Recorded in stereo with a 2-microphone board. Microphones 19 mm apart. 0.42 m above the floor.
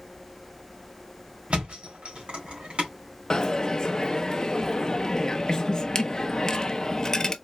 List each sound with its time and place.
1.5 s a thud: 80° right, 2 m
3.3 s a dropped coin: 30° left (ahead or behind), 0.5 m